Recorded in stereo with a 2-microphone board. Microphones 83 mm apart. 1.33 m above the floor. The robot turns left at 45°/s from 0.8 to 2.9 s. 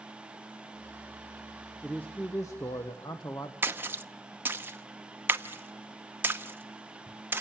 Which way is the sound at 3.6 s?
25° right (ahead or behind).